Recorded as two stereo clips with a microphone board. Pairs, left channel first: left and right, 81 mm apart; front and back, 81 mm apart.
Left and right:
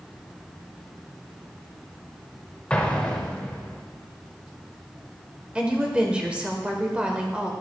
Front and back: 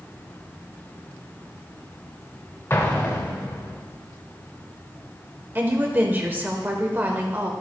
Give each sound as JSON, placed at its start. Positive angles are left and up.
{"t": 2.7, "sound": "an explosion", "azimuth_deg": 25, "distance_m": 1.0}
{"t": 5.5, "sound": "a woman speaking", "azimuth_deg": -150, "distance_m": 0.9}